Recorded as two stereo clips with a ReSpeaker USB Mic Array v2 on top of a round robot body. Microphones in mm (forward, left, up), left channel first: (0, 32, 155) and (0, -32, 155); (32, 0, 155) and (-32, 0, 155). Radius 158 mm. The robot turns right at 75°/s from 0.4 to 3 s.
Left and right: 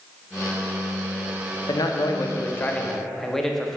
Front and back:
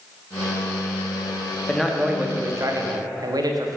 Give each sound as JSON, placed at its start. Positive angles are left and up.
{"t": 1.7, "sound": "a man speaking", "azimuth_deg": 75, "distance_m": 1.3}